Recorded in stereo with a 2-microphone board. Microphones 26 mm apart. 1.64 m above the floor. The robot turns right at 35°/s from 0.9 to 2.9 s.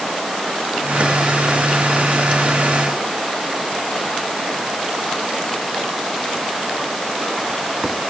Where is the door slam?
I don't hear a door slam.